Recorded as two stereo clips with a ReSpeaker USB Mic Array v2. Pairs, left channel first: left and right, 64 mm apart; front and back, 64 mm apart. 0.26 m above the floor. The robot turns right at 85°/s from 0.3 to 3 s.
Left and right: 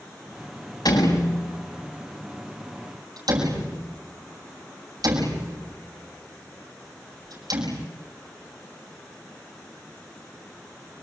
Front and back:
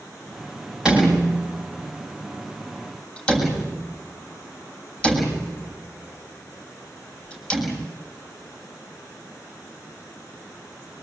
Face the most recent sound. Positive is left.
turn(degrees=-75)